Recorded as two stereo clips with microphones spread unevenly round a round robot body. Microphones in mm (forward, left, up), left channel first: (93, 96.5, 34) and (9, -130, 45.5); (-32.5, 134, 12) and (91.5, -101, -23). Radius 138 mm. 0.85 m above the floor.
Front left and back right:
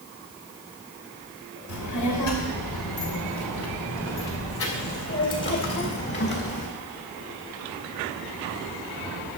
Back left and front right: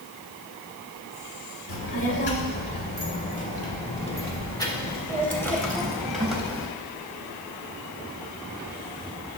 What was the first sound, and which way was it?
A child speaking, 75° left.